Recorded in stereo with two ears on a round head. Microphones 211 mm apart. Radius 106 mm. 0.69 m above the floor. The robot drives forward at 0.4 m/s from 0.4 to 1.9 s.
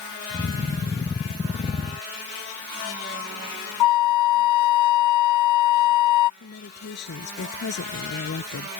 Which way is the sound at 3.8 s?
85° left.